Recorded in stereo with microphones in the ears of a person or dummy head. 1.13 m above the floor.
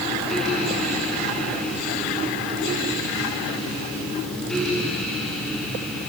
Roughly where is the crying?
I don't hear crying.